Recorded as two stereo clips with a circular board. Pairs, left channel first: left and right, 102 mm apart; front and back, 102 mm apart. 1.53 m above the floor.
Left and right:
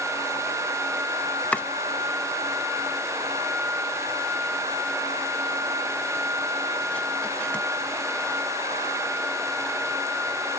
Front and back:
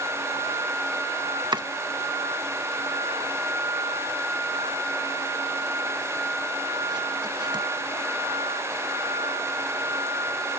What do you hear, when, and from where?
1.5 s chopping: 160° left